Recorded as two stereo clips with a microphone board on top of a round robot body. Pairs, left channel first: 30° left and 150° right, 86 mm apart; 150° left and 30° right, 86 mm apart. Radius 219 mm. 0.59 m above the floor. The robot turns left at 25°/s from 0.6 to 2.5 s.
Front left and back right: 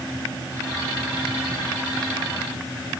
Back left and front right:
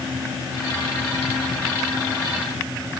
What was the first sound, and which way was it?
Only background noise.